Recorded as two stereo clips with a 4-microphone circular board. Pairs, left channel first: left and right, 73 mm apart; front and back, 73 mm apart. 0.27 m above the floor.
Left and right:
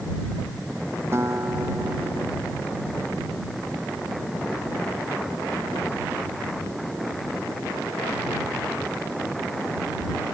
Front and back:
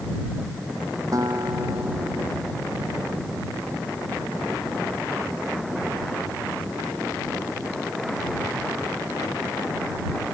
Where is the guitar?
140° right.